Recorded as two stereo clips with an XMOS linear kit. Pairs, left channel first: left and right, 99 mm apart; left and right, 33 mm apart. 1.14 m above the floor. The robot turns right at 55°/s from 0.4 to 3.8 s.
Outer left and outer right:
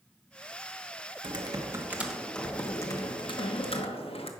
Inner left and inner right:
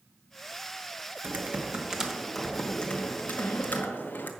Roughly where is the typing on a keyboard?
Ahead right.